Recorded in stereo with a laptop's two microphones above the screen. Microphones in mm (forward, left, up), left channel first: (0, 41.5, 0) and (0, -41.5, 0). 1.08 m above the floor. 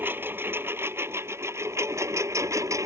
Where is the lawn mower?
25° right (ahead or behind); by 2.9 s 40° right (ahead or behind).